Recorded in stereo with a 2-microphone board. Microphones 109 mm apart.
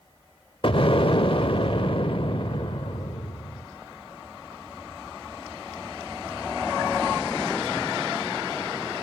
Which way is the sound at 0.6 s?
55° left (ahead or behind).